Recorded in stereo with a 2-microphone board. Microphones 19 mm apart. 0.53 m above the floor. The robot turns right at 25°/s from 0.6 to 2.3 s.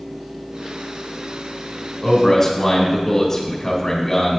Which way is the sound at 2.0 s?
10° left (ahead or behind).